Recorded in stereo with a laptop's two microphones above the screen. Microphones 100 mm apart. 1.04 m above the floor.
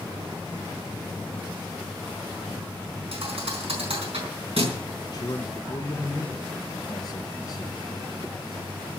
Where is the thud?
75° right (ahead or behind), 4.5 m.